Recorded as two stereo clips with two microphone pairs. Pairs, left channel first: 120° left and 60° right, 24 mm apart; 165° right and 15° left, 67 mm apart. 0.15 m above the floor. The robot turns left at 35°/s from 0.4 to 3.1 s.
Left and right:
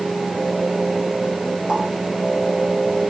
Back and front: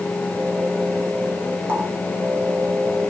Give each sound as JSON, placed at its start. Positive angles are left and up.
{"t": 1.7, "sound": "a running tap", "azimuth_deg": -35, "distance_m": 1.8}